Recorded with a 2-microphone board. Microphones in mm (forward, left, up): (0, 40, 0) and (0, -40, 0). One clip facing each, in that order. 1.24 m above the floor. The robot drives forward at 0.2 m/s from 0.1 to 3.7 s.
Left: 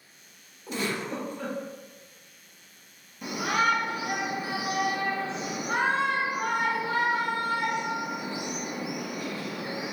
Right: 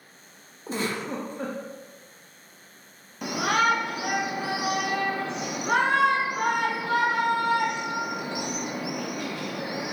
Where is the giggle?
40° right (ahead or behind), 0.6 m; by 1.6 s 35° right (ahead or behind), 0.7 m.